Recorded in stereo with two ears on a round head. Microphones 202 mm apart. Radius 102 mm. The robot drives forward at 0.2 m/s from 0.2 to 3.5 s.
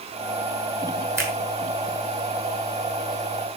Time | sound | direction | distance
1.2 | a finger snap | 10° right (ahead or behind) | 1.9 m